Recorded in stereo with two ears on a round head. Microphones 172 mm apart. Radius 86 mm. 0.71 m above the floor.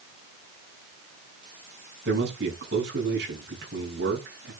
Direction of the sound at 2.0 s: 65° right (ahead or behind).